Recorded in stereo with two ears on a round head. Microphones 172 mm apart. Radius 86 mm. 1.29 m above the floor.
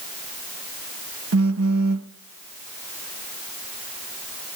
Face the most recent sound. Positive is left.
turn(degrees=-85)